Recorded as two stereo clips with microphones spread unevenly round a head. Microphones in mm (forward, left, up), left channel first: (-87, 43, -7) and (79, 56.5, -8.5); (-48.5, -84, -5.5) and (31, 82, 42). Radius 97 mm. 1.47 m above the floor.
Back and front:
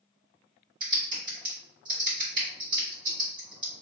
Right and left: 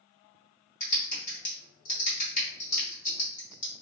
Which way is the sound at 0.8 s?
60° right.